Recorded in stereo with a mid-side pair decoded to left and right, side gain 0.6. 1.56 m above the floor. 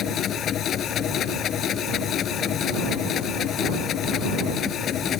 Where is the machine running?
50° left.